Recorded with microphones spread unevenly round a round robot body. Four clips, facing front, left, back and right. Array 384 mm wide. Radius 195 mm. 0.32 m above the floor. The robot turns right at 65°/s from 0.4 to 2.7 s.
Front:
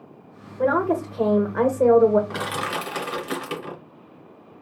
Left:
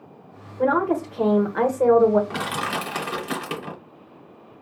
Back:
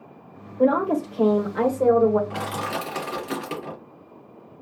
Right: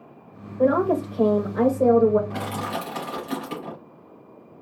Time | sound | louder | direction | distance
0.6 | a woman speaking | right 1 dB, back 1 dB | 100° right | 1.2 m
2.3 | crushing | left 2 dB, front 1 dB | 70° left | 2.5 m